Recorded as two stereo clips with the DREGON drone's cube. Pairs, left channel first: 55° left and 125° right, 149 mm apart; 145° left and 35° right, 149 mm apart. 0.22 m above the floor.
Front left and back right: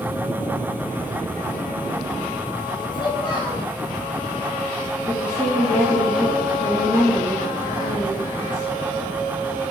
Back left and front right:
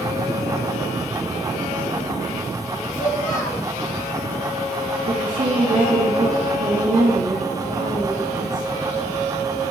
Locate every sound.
2.9 s a child speaking: 115° left, 2.5 m
5.1 s a woman speaking: 10° right, 5 m